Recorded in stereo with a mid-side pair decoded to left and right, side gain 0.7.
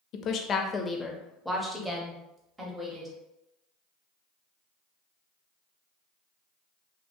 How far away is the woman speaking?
About 0.7 m.